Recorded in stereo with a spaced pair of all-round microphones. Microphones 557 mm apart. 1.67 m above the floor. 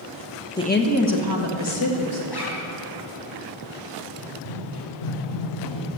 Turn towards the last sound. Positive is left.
turn(degrees=50)  # may be behind; listen again after turning